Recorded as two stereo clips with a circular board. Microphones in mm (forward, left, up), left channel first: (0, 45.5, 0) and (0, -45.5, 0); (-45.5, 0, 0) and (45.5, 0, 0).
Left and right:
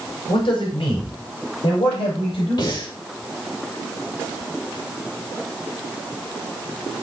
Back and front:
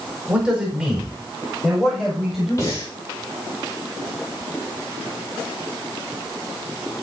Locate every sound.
0.3 s a man speaking: 80° left, 5 m; by 2.8 s 90° left, 7 m
2.6 s breathing: 125° left, 5.5 m